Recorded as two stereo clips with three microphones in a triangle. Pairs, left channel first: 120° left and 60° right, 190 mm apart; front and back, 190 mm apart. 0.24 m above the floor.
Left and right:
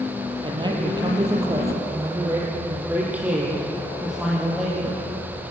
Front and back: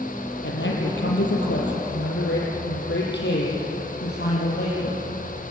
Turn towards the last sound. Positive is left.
turn(degrees=30)